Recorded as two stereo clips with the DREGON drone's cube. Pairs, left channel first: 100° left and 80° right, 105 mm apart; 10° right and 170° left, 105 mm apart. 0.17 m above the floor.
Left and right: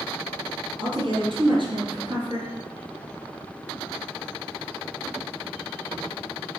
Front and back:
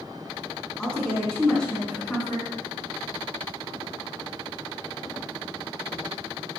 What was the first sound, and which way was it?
A woman speaking, 90° right.